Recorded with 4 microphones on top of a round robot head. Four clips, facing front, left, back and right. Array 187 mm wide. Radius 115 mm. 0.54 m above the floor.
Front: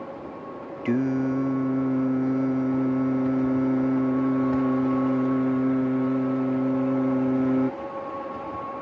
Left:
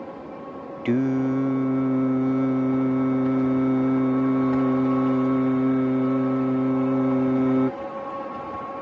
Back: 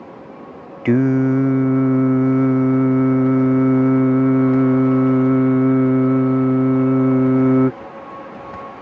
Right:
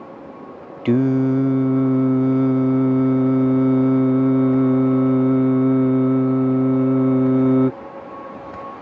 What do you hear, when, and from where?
0.8 s singing: 150° right